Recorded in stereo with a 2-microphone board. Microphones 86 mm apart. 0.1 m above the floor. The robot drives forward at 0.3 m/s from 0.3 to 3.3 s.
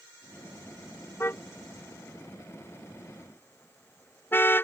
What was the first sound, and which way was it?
A car horn, 30° left (ahead or behind).